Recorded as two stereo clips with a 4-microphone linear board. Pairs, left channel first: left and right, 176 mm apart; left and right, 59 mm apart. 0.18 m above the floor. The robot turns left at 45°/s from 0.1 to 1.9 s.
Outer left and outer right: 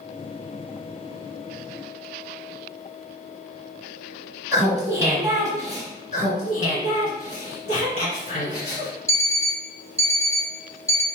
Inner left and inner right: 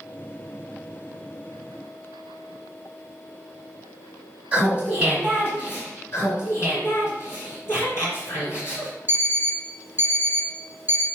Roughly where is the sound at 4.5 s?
Right.